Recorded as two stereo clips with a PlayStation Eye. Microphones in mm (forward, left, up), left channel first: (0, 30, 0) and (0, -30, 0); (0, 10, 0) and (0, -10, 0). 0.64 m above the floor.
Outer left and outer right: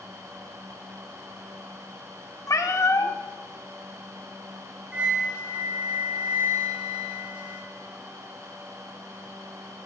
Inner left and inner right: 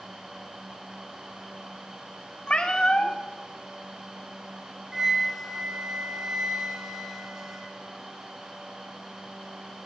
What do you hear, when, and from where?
2.5 s a cat meowing: 65° left (ahead or behind), 0.7 m
4.9 s a flute: 20° right (ahead or behind), 1.4 m